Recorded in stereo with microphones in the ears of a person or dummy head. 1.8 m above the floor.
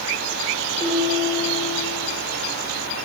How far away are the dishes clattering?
About 3.5 m.